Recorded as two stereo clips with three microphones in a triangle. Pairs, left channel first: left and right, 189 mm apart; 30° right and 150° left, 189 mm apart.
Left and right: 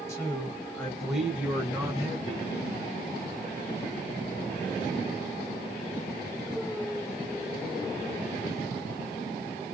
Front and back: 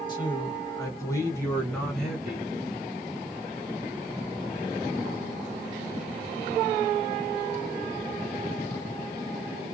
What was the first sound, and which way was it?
A man speaking, 25° left.